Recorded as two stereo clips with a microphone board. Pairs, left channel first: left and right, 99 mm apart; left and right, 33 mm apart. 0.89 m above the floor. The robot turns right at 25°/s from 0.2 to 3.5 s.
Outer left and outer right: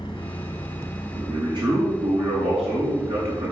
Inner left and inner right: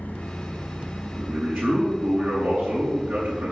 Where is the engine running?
130° left, 1.2 m; by 3.5 s 145° right, 1.2 m.